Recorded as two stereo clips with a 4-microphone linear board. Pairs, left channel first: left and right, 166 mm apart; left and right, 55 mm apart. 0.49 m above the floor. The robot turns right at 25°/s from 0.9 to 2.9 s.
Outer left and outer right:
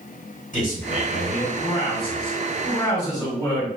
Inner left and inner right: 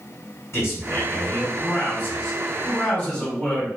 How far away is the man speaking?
About 1.5 m.